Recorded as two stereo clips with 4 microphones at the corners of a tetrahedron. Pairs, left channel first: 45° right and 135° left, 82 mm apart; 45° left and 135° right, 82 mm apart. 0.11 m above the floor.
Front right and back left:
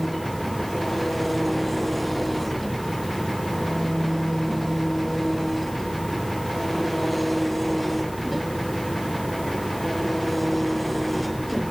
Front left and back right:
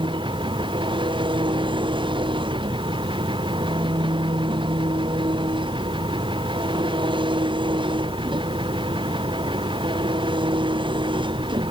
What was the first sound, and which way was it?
An engine running, 135° right.